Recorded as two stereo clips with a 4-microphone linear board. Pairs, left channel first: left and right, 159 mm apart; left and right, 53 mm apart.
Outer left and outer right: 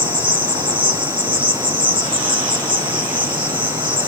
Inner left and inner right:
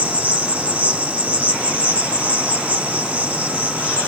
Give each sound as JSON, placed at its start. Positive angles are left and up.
{"t": 0.0, "sound": "an insect", "side_deg": -30, "distance_m": 1.3}